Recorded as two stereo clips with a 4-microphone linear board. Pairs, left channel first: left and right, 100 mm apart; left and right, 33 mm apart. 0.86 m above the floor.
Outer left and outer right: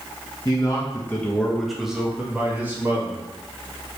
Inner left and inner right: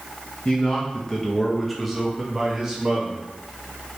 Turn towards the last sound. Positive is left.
turn(degrees=-20)  # may be behind; listen again after turning